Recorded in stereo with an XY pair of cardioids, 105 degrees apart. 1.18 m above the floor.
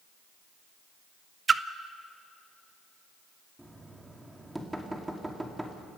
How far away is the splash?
About 0.7 m.